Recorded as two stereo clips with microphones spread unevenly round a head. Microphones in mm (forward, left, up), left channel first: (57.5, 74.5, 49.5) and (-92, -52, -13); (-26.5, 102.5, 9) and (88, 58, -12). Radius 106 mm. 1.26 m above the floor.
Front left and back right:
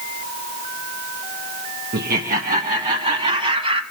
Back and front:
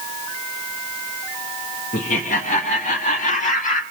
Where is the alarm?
I don't hear an alarm.